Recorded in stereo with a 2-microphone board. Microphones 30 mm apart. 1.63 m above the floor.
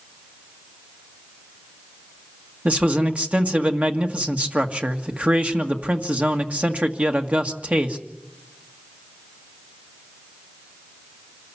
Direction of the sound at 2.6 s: 50° right (ahead or behind).